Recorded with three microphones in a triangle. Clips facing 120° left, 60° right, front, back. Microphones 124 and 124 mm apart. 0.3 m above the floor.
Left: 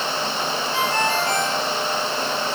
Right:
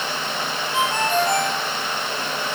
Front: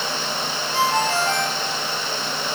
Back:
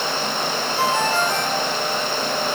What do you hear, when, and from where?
0.7 s a ringtone: 10° left, 5.5 m